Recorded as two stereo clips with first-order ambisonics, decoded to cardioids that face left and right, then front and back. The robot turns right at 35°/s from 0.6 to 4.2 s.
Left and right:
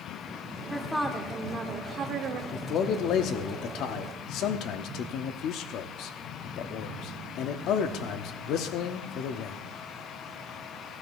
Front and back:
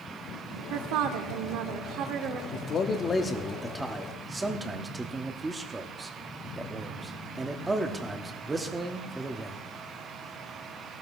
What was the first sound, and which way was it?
A woman speaking, 170° left.